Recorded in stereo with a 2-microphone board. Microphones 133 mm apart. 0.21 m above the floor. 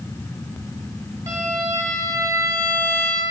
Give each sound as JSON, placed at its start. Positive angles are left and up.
{"t": 1.3, "sound": "a violin", "side_deg": -25, "distance_m": 1.6}